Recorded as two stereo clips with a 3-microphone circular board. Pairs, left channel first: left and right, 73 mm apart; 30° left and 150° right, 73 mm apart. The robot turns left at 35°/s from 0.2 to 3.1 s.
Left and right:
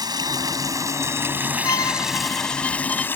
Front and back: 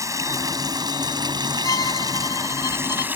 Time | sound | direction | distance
0.0 | running water | 110° right | ?
1.6 | a violin | 60° left | ?